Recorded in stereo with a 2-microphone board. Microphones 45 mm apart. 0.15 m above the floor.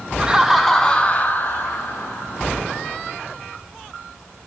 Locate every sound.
0.2 s laughter: 20° right (ahead or behind), 1.0 m; by 3.1 s 60° left (ahead or behind), 2.5 m